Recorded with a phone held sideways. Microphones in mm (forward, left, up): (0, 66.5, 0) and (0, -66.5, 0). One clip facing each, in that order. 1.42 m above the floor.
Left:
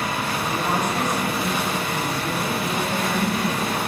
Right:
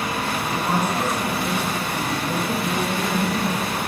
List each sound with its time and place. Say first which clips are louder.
0.5 s a woman speaking: right 1 dB; 10° left (ahead or behind), 9 m; by 3.8 s 30° left (ahead or behind), 12 m